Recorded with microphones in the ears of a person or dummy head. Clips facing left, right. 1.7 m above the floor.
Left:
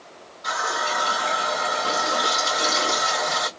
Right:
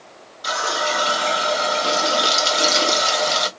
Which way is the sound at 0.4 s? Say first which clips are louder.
Right 4 dB; 45° right (ahead or behind).